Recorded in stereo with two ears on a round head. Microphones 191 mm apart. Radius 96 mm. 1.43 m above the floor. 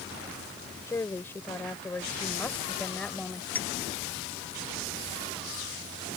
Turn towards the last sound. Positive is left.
turn(degrees=10)  # may be behind; listen again after turning